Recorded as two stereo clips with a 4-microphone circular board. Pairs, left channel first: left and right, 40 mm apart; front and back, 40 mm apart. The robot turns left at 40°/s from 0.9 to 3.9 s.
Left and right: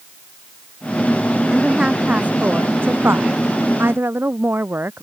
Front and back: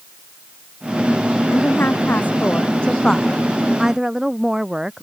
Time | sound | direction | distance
1.5 | a woman speaking | 10° right | ?